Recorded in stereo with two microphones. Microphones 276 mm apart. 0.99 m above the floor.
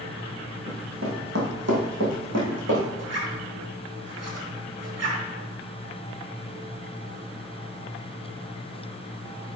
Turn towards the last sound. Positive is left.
turn(degrees=-65)  # may be behind; listen again after turning